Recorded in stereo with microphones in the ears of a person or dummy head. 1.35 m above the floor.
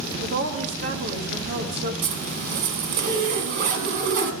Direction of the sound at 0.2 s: 50° right (ahead or behind).